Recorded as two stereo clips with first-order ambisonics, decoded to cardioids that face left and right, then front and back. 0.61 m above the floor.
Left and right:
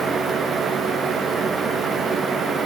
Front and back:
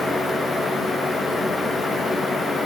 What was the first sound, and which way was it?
Only background noise.